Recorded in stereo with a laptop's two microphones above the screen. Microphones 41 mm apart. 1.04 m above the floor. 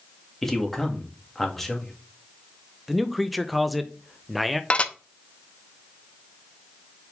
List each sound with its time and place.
0.4 s a man speaking: 5° left (ahead or behind), 2.0 m
2.9 s a man speaking: centre (ahead or behind), 0.5 m
4.7 s dishes clattering: 30° left (ahead or behind), 0.7 m